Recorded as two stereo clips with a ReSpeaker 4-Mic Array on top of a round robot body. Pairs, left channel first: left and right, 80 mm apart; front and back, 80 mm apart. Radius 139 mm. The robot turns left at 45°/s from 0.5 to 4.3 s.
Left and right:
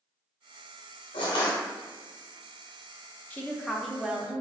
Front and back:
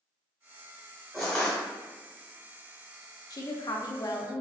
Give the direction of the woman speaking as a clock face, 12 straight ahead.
11 o'clock.